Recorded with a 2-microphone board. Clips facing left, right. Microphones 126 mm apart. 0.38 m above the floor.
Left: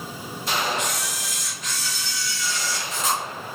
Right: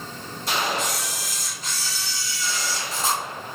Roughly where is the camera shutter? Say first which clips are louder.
Even; right.